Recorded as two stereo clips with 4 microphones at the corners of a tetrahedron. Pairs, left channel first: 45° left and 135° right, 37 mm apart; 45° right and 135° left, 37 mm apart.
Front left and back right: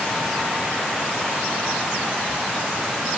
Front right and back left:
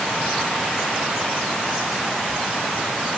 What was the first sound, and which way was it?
Only background noise.